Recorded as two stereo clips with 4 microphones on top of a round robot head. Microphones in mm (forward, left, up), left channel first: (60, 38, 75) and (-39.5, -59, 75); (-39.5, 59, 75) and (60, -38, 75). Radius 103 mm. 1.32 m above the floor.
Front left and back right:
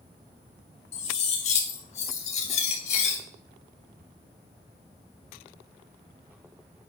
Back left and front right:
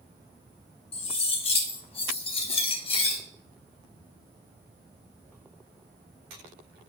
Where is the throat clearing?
No throat clearing in this recording.